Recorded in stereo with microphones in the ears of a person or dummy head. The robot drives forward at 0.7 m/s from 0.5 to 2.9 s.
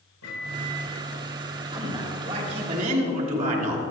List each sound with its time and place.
0.2 s a microwave: 85° left, 4 m; by 1.0 s 80° left, 4 m
1.7 s a man speaking: 25° right (ahead or behind), 2.5 m; by 3.8 s 40° right (ahead or behind), 1.7 m